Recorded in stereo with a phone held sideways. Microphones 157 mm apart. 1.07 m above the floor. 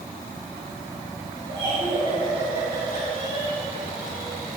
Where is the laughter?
35° right (ahead or behind), 5.5 m.